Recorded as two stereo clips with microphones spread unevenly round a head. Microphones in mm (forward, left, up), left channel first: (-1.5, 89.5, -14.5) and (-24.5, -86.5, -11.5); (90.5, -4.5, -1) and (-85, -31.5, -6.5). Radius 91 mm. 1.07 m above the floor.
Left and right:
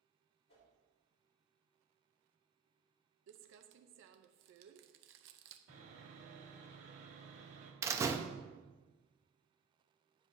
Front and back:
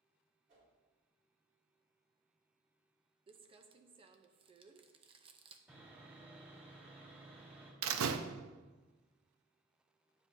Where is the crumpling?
110° right, 0.7 m.